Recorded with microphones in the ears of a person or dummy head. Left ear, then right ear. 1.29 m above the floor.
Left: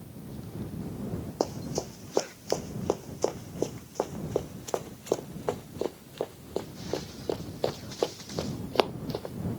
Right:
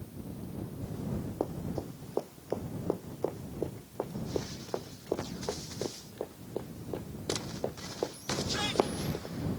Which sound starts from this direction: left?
Running footsteps, at 1.4 s.